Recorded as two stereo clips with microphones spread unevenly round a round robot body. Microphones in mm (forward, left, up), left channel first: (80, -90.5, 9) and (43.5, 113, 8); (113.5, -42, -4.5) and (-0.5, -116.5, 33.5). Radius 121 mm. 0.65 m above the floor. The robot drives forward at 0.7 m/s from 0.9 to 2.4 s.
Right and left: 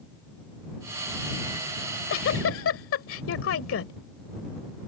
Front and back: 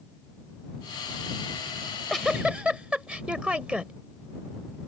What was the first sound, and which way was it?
A giggle, 50° right.